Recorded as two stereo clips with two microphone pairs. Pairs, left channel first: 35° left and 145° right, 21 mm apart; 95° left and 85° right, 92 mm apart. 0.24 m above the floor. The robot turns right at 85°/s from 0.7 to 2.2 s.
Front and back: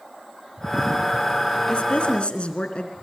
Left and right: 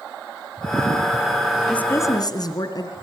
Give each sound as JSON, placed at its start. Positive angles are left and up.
{"t": 1.7, "sound": "a woman speaking", "azimuth_deg": 15, "distance_m": 3.0}